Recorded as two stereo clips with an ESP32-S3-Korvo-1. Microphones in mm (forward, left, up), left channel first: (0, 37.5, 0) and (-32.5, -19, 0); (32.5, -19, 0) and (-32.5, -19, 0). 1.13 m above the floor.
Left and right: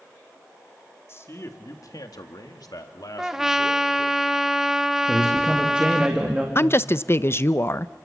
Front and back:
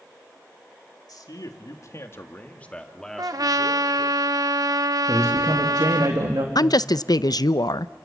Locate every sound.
1.1 s a man speaking: 10° left, 2.5 m; by 4.2 s 100° left, 3.5 m
3.2 s a trumpet: 155° left, 0.9 m
5.1 s a man speaking: 165° left, 2.5 m
6.5 s a woman speaking: 10° left, 0.5 m